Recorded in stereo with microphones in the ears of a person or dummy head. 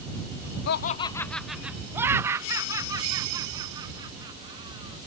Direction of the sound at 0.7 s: 60° left (ahead or behind).